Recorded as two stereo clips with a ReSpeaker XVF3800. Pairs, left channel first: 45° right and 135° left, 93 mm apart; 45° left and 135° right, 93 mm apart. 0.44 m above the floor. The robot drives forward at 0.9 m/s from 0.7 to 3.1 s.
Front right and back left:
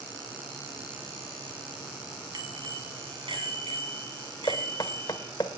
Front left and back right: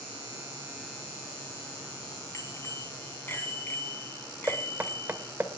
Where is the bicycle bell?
100° left, 2.5 m; by 5.3 s 110° left, 3 m.